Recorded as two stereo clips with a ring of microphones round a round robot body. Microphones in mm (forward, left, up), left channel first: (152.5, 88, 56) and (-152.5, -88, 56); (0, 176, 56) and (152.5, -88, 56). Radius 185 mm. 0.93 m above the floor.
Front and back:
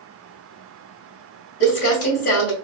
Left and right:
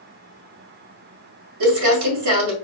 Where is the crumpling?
35° right, 2.0 m.